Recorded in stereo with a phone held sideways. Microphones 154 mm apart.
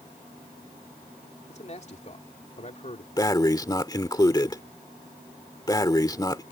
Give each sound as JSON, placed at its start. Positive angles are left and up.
{"t": 1.5, "sound": "a man speaking", "side_deg": 50}
{"t": 3.2, "sound": "breathing", "side_deg": 25}